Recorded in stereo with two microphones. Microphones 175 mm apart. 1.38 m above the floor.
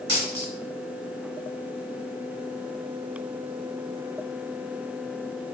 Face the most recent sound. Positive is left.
turn(degrees=30)  # may be behind; listen again after turning